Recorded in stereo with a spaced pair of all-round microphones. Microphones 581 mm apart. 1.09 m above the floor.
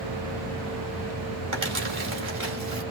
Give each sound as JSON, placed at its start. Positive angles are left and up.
{"t": 1.5, "sound": "crumpling", "side_deg": -55, "distance_m": 2.0}